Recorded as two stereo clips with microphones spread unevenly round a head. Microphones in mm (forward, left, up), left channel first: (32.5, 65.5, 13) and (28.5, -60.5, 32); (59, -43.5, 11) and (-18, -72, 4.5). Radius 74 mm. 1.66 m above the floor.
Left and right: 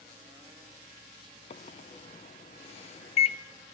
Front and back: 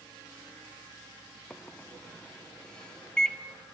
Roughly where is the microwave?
Left.